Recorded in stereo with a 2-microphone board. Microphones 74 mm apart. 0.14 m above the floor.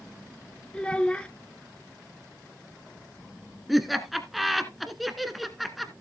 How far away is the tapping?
I don't hear tapping.